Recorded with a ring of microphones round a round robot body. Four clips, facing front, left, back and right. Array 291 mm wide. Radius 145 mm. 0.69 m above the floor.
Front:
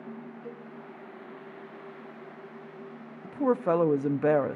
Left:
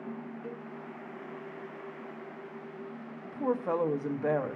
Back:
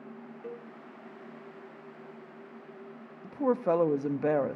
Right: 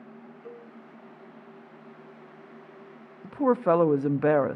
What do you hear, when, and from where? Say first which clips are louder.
0.4 s a cowbell: left 2 dB, back 5 dB; 155° left, 8 m
3.2 s a woman speaking: right 8 dB, front 2 dB; 75° right, 0.6 m